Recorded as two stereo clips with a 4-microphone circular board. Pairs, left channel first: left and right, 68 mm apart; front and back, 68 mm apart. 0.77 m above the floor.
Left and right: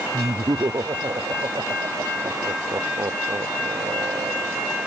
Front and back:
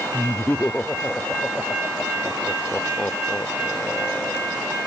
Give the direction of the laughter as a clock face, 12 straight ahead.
2 o'clock.